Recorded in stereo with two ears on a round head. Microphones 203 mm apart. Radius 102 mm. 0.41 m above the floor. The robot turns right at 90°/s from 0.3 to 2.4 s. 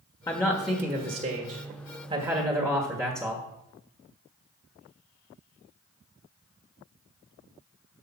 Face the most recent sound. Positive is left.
turn(degrees=-20)